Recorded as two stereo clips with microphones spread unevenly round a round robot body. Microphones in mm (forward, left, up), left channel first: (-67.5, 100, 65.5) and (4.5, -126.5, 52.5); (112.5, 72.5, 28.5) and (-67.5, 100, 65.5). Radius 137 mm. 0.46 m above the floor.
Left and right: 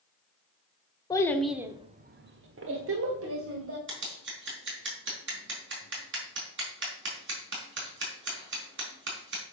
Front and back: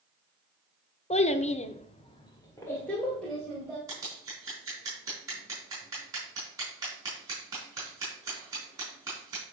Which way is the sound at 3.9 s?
110° right.